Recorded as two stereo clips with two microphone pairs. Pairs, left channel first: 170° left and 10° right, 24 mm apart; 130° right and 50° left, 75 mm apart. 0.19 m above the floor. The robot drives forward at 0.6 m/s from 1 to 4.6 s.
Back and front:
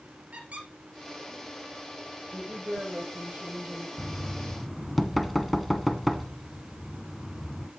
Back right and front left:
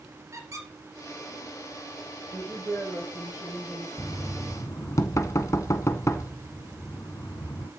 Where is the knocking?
80° right, 1.3 m; by 7.7 s 100° right, 1.3 m.